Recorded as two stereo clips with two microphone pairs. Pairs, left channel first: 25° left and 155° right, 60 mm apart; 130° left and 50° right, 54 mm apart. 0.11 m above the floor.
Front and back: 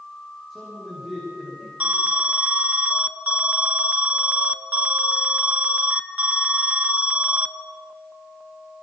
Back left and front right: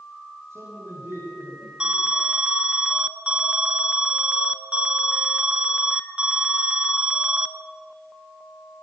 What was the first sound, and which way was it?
A man speaking, 65° right.